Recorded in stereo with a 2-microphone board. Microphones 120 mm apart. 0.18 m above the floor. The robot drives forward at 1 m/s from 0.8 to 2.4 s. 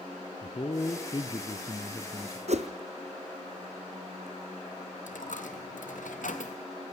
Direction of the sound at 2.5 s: 60° right (ahead or behind).